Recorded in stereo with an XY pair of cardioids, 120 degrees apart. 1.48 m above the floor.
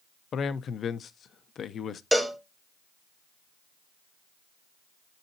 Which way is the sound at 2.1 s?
5° left.